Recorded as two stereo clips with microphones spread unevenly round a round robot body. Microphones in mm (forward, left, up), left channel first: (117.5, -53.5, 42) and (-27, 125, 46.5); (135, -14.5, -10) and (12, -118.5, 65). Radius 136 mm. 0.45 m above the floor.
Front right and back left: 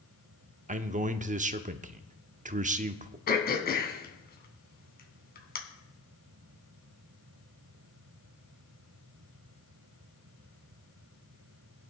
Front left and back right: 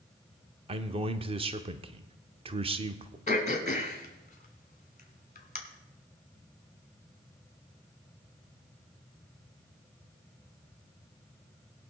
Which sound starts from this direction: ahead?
Throat clearing, at 3.3 s.